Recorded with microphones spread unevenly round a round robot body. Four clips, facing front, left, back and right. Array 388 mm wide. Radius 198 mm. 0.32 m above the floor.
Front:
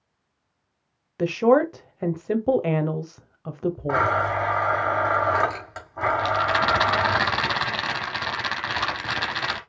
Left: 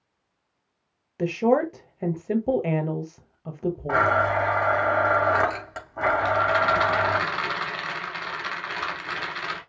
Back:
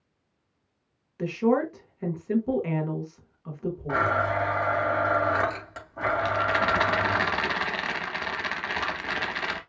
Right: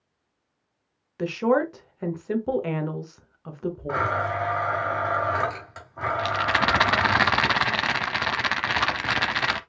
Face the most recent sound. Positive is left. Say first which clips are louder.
# even, front 2 dB
turn(degrees=-70)